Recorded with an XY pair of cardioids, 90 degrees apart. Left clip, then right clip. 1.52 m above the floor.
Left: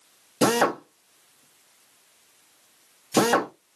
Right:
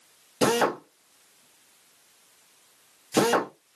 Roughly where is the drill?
Ahead left.